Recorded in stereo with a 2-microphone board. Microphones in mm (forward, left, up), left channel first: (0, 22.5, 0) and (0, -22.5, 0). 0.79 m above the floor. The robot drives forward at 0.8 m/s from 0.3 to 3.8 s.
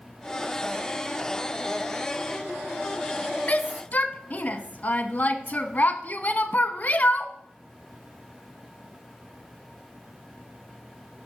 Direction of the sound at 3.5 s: 35° left (ahead or behind).